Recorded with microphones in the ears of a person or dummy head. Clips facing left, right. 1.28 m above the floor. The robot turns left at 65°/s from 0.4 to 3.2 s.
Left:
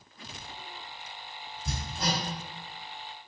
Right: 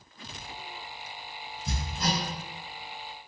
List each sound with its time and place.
1.6 s hammering: 45° left (ahead or behind), 2.0 m; by 2.2 s 75° left (ahead or behind), 2.0 m